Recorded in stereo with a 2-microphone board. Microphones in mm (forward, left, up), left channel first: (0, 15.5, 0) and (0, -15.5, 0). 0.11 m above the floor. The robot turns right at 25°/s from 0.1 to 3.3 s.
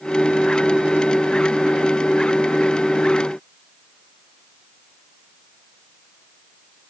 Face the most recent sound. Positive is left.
No sound to turn to.